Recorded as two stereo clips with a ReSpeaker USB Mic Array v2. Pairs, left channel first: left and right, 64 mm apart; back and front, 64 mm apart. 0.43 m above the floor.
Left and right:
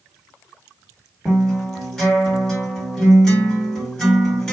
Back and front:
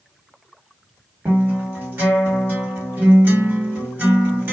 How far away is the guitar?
About 1.7 m.